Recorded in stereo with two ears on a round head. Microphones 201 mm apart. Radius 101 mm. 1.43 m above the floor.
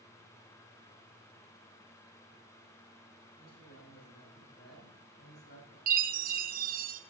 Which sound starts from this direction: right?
A chime, at 5.9 s.